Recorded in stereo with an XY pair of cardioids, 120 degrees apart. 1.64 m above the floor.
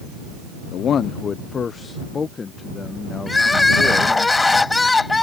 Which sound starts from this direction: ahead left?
A man speaking, at 0.7 s.